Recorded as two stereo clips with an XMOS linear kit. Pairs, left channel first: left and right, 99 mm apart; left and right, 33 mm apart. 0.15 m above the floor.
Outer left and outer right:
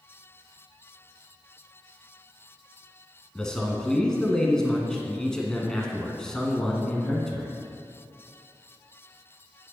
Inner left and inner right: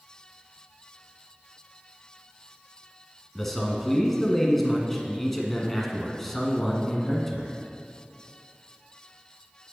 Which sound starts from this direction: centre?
A man speaking, at 3.4 s.